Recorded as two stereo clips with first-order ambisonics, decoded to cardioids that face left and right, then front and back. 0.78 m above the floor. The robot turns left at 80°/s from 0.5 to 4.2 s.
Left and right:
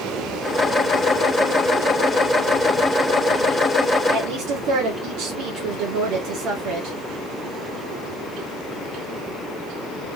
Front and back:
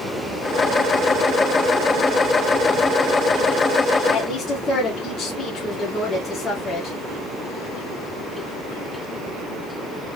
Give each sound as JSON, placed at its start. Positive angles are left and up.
{"t": 4.1, "sound": "a woman speaking", "azimuth_deg": -60, "distance_m": 1.7}